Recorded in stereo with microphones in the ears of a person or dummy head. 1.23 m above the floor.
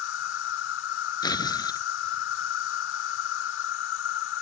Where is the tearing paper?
25° left (ahead or behind).